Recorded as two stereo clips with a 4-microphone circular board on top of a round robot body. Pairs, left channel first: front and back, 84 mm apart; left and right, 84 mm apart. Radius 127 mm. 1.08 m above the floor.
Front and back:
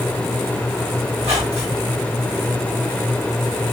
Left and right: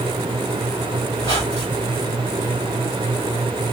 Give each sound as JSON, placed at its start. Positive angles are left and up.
{"t": 1.2, "sound": "a squeak", "azimuth_deg": 130, "distance_m": 0.8}